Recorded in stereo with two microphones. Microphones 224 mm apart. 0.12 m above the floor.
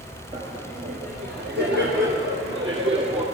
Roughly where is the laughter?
Right.